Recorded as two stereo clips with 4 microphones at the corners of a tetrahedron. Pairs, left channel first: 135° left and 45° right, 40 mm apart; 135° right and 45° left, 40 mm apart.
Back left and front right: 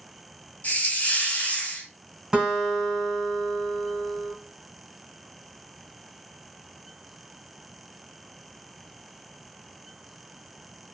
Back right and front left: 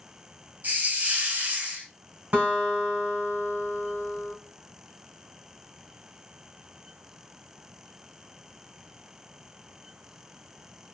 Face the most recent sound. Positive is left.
turn(degrees=25)